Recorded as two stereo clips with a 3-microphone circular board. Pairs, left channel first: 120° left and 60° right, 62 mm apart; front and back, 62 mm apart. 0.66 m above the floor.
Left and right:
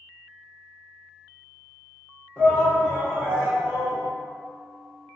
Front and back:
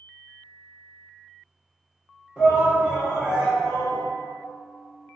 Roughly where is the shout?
Behind left.